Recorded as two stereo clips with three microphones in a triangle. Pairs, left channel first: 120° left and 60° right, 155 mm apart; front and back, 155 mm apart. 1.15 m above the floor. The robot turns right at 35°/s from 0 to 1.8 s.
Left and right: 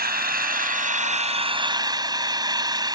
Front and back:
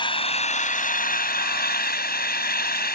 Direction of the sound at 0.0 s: 60° right.